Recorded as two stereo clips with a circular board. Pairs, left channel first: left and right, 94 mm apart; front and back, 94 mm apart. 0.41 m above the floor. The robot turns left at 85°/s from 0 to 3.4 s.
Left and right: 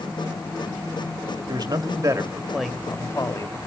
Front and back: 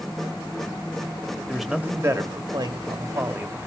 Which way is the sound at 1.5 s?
80° right.